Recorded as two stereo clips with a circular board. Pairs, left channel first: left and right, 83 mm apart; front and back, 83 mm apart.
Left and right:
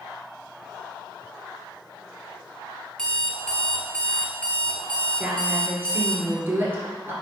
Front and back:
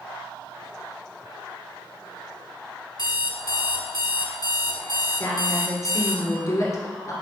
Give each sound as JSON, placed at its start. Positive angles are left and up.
{"t": 3.0, "sound": "an alarm clock", "azimuth_deg": 10, "distance_m": 0.9}
{"t": 5.2, "sound": "a woman speaking", "azimuth_deg": -35, "distance_m": 1.7}